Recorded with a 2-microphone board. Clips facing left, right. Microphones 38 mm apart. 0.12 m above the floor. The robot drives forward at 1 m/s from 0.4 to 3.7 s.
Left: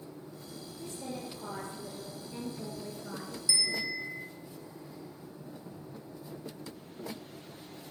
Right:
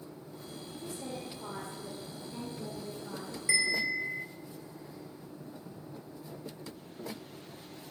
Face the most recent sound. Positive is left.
turn(degrees=-45)  # may be behind; listen again after turning